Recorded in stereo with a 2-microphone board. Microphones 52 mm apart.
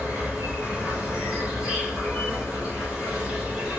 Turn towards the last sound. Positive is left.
turn(degrees=-20)  # may be behind; listen again after turning